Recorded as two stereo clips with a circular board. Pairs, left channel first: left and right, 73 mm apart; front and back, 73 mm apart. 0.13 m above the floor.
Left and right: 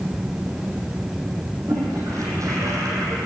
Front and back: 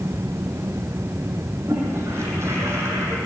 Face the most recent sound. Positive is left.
turn(degrees=-130)